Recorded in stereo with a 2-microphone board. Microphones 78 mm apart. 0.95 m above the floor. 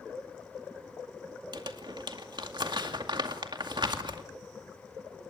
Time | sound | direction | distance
1.5 | crumpling | 65° right (ahead or behind) | 2 m